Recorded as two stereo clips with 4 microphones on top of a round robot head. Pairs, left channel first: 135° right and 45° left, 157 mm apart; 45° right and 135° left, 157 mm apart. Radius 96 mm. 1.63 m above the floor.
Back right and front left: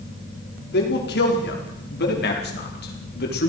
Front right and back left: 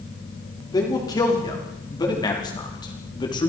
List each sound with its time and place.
0.7 s a man speaking: 115° right, 5.5 m; by 3.5 s 110° right, 4 m